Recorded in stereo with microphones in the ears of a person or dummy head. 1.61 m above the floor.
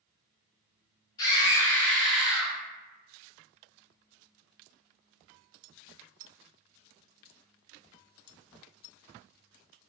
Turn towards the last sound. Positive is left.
turn(degrees=-15)  # may be behind; listen again after turning